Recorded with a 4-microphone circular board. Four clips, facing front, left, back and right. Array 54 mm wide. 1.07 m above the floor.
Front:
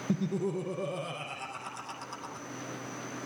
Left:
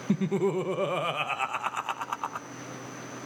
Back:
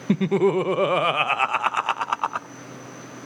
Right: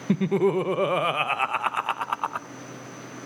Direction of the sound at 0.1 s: 160° right.